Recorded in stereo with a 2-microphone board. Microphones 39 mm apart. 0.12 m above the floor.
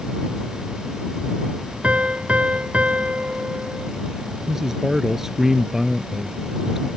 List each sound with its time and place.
1.8 s a piano: 35° right (ahead or behind)
4.5 s a man speaking: 10° right (ahead or behind)